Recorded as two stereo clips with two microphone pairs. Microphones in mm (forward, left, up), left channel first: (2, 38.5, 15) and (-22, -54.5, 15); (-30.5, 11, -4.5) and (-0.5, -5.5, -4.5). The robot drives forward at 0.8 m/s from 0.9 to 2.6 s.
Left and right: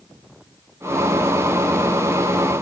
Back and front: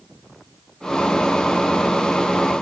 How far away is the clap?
I don't hear a clap.